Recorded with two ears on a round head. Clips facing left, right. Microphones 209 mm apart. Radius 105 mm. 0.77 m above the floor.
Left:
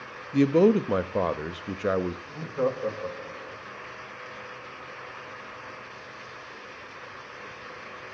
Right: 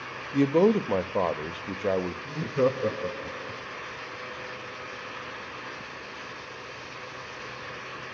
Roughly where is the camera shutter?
I don't hear a camera shutter.